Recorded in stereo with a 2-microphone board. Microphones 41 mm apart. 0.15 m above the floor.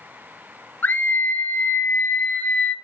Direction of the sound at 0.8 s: 45° left (ahead or behind).